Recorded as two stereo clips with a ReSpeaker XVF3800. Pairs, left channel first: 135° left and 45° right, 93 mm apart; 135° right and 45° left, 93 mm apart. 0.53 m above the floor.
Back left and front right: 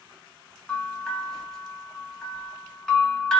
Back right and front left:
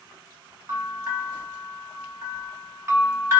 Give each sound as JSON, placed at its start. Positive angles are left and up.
{"t": 0.7, "sound": "a bell", "azimuth_deg": 60, "distance_m": 1.1}